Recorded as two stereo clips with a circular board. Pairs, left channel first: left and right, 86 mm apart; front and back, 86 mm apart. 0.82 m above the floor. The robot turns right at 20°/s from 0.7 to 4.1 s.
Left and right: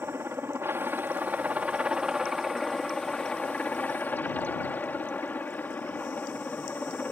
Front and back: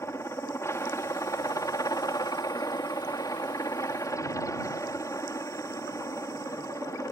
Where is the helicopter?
40° right; by 7.1 s 30° left.